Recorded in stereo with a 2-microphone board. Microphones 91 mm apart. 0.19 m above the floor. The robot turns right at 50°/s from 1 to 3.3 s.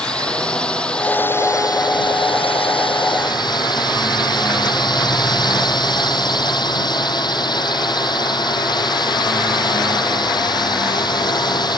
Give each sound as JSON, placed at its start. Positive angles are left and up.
{"t": 0.0, "sound": "a drone", "azimuth_deg": 10}